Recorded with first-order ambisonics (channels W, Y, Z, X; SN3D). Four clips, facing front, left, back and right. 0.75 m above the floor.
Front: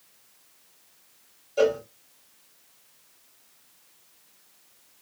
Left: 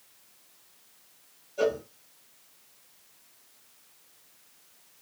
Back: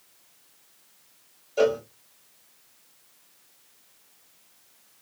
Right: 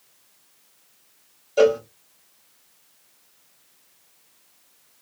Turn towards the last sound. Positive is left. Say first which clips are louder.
# right 10 dB, even
turn(degrees=-95)